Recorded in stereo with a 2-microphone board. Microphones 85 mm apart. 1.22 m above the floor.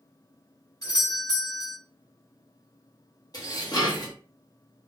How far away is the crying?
No crying in this recording.